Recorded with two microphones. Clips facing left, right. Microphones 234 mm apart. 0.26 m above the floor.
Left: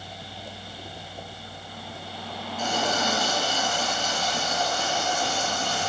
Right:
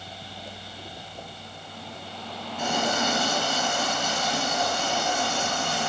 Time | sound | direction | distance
2.6 | a running tap | 70° right (ahead or behind) | 3.5 m